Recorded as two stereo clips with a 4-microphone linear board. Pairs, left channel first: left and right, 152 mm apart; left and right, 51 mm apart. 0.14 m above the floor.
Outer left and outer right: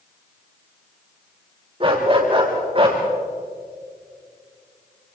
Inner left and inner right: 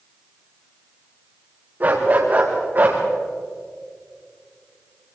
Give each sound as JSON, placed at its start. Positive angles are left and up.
{"t": 1.8, "sound": "a dog barking", "side_deg": -35, "distance_m": 5.0}